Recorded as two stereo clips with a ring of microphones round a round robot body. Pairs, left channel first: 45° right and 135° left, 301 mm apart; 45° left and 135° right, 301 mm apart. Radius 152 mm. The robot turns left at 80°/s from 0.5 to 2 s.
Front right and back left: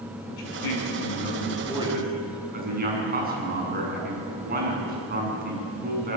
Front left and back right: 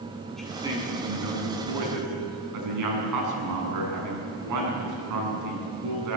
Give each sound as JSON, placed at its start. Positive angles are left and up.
{"t": 0.3, "sound": "a man speaking", "azimuth_deg": -45, "distance_m": 8.0}